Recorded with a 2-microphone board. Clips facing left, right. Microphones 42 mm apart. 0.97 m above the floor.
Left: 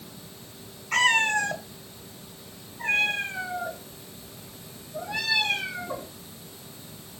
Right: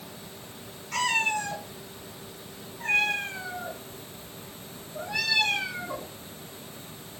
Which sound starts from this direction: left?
A cat meowing, at 0.9 s.